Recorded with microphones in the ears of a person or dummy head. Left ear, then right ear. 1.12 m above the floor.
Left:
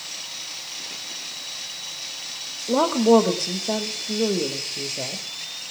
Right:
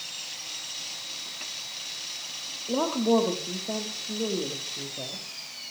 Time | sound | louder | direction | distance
2.7 | a woman speaking | left 8 dB | 70° left (ahead or behind) | 2 m